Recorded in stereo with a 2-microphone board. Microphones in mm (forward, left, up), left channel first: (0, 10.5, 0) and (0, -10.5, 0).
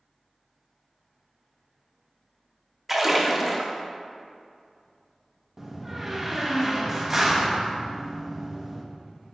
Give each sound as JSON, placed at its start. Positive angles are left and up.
{"t": 2.9, "sound": "a splash", "side_deg": -15, "distance_m": 0.9}
{"t": 5.6, "sound": "a door slam", "side_deg": -15, "distance_m": 0.9}